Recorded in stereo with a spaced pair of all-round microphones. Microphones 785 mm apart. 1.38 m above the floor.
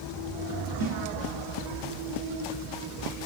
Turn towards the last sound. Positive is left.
turn(degrees=-60)  # may be behind; listen again after turning